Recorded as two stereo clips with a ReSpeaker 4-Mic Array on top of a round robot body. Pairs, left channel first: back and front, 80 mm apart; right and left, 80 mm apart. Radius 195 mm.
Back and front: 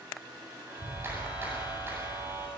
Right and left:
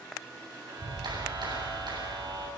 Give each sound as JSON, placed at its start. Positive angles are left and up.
{"t": 0.7, "sound": "a clap", "azimuth_deg": 60, "distance_m": 8.0}